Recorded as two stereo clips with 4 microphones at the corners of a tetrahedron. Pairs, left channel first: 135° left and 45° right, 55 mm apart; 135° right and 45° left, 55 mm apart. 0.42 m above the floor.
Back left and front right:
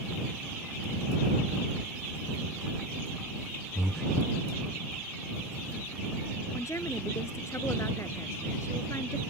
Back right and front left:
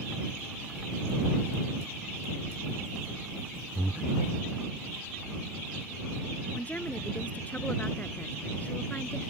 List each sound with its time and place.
3.8 s breathing: 35° left
6.5 s a woman speaking: 160° left